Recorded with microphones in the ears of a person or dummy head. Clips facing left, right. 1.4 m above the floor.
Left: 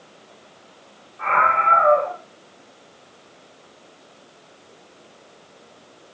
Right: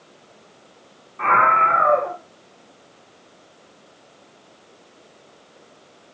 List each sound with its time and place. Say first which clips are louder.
1.2 s a scream: right 2 dB; 60° right (ahead or behind), 1.5 m